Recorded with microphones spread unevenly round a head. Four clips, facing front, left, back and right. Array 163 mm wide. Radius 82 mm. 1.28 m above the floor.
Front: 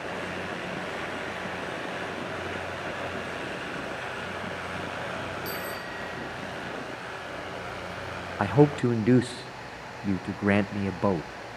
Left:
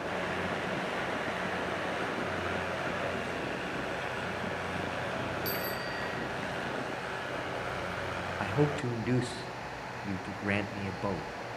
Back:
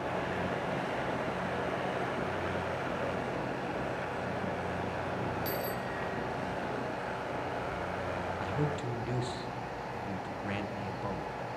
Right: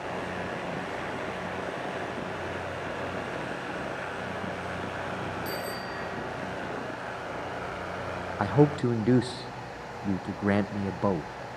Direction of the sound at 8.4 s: 30° right.